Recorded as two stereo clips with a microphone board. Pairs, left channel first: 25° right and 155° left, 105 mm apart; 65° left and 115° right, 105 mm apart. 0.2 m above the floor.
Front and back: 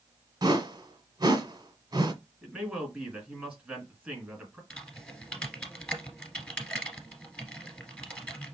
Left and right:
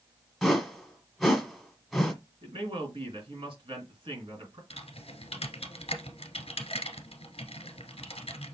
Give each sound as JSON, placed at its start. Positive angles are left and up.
{"t": 0.4, "sound": "a whoosh", "azimuth_deg": 155, "distance_m": 1.3}
{"t": 2.4, "sound": "a man speaking", "azimuth_deg": -125, "distance_m": 2.5}
{"t": 4.7, "sound": "typing on a keyboard", "azimuth_deg": 55, "distance_m": 1.5}